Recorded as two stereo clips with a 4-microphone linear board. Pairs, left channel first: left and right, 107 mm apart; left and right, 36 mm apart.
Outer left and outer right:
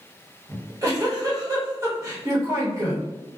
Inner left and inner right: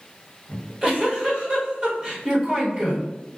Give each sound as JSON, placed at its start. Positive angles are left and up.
{"t": 0.5, "sound": "a giggle", "side_deg": -30, "distance_m": 1.1}